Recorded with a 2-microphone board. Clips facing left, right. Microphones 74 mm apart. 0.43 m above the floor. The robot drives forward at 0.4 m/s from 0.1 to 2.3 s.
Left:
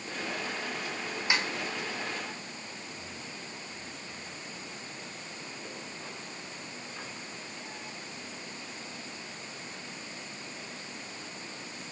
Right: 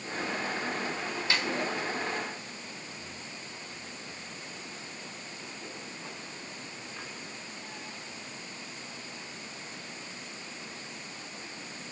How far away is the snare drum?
About 0.8 m.